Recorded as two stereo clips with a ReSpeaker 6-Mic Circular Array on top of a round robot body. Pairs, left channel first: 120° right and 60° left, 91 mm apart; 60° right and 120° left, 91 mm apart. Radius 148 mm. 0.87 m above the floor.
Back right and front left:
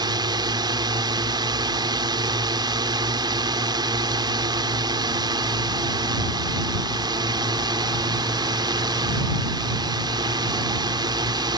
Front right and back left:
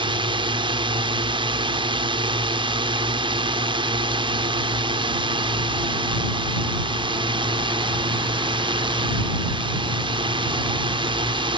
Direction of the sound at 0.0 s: 95° left.